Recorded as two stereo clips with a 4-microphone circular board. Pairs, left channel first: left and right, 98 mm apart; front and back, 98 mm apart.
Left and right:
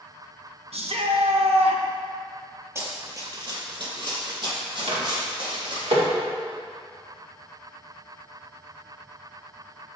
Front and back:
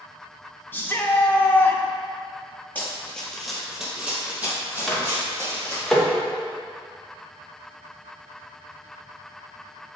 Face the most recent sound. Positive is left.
turn(degrees=-85)